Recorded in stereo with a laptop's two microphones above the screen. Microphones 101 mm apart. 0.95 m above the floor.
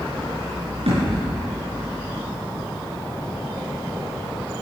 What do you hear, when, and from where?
0.9 s a thud: 80° right, 5.5 m